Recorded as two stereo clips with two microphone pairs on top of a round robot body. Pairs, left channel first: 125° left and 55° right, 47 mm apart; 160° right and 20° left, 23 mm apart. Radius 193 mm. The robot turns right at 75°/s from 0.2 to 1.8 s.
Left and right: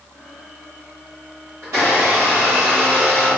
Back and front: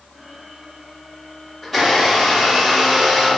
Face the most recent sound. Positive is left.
turn(degrees=-65)